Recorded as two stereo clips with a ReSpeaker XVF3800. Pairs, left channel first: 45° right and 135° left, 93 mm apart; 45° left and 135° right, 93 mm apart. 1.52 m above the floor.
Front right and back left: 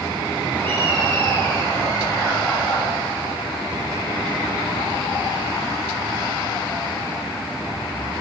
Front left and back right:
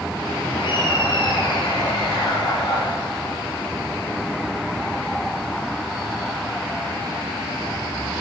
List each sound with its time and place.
0.5 s laughter: 20° left, 4.5 m; by 2.9 s straight ahead, 5.5 m